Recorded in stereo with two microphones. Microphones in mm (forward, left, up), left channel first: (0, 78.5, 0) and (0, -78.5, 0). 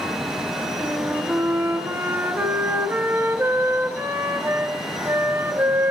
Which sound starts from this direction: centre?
A flute, at 0.8 s.